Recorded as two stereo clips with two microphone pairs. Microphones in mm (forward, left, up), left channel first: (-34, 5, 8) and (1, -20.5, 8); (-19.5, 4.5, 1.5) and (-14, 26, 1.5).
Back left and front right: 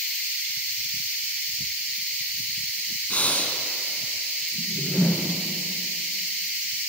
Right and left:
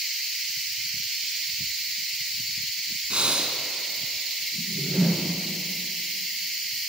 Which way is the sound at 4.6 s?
160° left.